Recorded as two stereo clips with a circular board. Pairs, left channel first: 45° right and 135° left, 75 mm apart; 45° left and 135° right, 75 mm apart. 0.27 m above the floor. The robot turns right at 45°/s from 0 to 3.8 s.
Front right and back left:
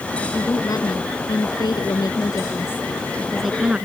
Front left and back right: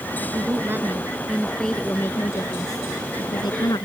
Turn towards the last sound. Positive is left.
turn(degrees=60)